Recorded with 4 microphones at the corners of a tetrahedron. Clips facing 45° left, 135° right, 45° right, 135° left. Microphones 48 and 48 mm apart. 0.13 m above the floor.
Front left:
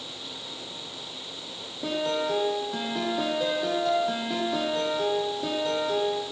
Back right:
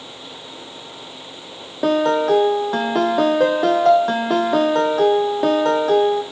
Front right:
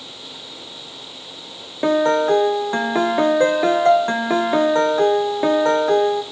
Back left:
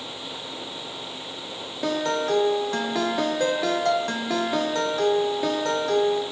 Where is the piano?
105° right, 0.9 m.